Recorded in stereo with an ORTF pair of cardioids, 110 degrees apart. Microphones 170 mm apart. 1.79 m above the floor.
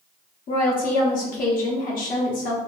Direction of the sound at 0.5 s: 55° left.